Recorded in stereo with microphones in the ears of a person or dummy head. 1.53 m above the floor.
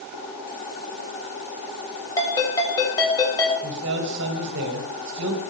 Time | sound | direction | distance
2.2 | a ringtone | 15° left (ahead or behind) | 7 m
3.6 | a man speaking | 70° right (ahead or behind) | 2.5 m